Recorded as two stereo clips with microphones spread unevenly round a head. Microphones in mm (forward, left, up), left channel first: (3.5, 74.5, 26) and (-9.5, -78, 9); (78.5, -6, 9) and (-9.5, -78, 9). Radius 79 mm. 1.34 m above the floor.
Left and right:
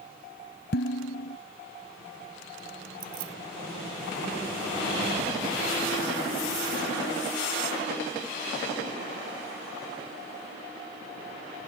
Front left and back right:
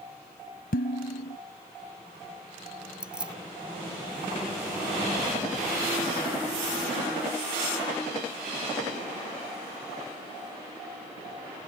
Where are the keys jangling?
60° right.